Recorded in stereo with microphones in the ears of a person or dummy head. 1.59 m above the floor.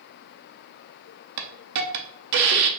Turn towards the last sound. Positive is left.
turn(degrees=-60)  # may be behind; listen again after turning